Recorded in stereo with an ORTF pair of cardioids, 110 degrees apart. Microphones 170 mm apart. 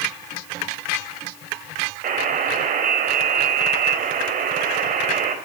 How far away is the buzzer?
About 3.5 m.